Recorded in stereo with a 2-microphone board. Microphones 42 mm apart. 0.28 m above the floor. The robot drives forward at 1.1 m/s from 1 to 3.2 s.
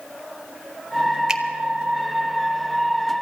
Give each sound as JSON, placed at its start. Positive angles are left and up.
{"t": 1.3, "sound": "a finger snap", "side_deg": -15, "distance_m": 0.8}